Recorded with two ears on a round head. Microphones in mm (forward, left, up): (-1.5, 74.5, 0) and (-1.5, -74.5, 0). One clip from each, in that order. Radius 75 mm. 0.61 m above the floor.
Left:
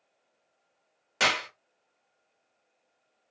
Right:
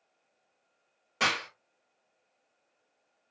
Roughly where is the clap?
Left.